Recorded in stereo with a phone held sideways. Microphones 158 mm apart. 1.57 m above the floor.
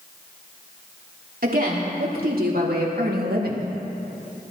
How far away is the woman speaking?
About 3.5 m.